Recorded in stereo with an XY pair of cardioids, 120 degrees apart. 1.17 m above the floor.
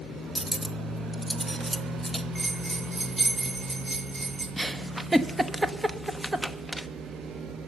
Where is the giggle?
10° right, 0.8 m.